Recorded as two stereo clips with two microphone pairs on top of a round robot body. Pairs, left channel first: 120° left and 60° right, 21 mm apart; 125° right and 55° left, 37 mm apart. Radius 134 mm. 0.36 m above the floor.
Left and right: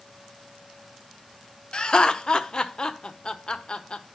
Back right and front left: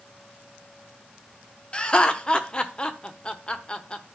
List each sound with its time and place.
1.7 s laughter: 170° left, 1.2 m